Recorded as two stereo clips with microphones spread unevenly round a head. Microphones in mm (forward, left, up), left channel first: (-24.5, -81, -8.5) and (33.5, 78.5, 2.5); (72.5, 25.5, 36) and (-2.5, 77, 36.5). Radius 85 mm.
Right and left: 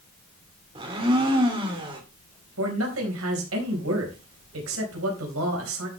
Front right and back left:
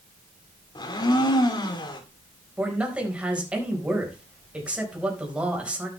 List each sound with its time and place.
0.8 s a blender: 5° left, 2.5 m
2.6 s a man speaking: 70° left, 4 m